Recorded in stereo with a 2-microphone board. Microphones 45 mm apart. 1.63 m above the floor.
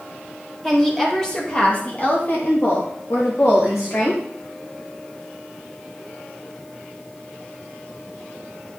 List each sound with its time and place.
0.6 s a woman speaking: 5° left (ahead or behind), 2 m; by 4.2 s 75° left (ahead or behind), 2 m